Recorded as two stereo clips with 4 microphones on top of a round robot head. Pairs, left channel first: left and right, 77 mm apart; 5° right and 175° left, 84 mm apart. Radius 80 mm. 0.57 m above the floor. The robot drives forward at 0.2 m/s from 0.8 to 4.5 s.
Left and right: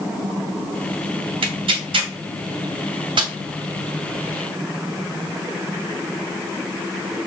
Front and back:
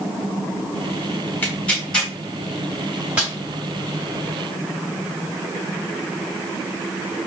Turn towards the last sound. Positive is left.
turn(degrees=-125)